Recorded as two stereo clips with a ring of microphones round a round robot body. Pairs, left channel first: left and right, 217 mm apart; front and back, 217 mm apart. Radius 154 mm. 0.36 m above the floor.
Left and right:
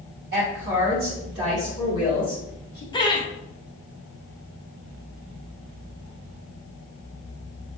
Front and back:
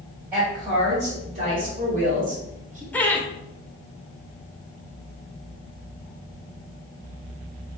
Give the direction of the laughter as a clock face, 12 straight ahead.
10 o'clock.